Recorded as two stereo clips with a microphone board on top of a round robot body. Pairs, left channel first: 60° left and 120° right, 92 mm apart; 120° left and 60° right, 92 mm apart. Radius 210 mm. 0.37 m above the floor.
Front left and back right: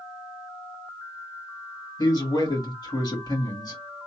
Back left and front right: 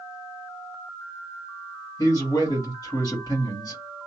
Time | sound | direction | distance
2.0 | a man speaking | 90° left | 1.9 m